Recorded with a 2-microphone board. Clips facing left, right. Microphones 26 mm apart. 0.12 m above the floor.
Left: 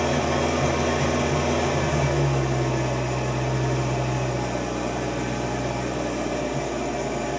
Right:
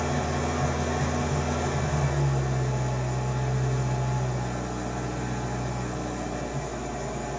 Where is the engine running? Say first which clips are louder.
Left 6 dB; 65° left (ahead or behind), 0.8 m.